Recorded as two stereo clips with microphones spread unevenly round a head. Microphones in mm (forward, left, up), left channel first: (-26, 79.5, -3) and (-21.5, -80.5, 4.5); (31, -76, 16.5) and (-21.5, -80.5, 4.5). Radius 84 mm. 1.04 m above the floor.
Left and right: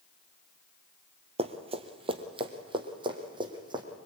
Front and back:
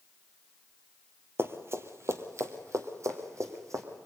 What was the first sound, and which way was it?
Running footsteps, 130° right.